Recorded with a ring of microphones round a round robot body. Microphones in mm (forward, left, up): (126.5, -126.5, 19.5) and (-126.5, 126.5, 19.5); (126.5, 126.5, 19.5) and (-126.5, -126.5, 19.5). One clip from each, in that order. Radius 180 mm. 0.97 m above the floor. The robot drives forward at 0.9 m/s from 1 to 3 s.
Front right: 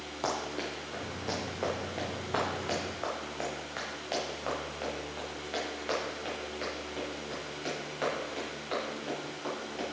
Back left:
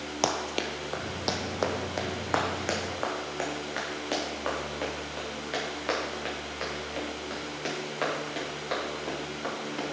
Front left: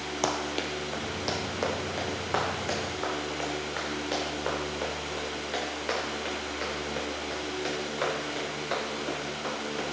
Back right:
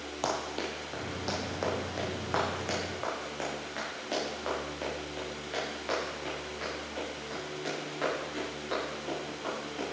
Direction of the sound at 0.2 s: 110° left.